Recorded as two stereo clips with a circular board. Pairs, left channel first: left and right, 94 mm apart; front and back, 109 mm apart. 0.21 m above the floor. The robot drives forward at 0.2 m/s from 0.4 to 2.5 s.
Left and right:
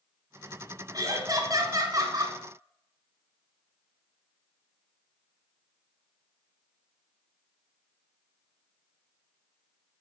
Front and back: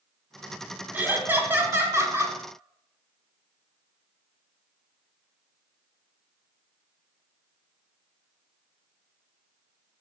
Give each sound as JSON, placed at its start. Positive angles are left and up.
{"t": 0.9, "sound": "laughter", "azimuth_deg": -115, "distance_m": 1.4}